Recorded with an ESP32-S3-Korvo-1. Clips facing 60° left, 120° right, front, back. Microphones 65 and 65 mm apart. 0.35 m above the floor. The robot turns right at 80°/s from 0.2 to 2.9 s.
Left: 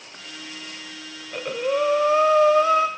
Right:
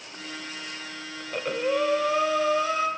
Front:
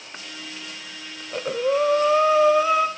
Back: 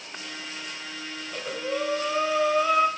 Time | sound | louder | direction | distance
1.2 | breathing | left 1 dB, front 10 dB | 55° right | 0.9 m